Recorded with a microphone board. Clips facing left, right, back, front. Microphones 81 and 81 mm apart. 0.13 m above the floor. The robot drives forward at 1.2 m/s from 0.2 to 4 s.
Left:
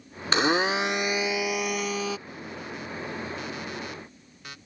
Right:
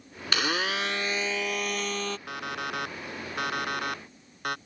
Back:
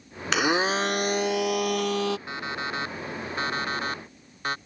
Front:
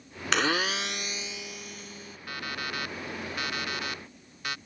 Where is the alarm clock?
115° right; by 4.6 s 125° right.